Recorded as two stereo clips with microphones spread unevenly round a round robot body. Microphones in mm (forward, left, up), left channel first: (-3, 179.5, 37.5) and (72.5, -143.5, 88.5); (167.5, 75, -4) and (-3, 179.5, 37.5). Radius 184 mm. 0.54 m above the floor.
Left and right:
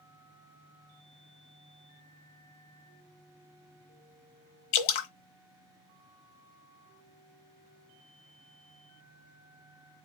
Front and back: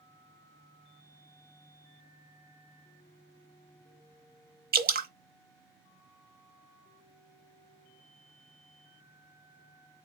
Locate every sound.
4.7 s dripping: 105° left, 1.1 m